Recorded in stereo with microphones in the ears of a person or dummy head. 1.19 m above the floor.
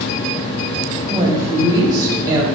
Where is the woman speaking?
10° right (ahead or behind), 0.7 m; by 2.5 s 20° right (ahead or behind), 1.3 m.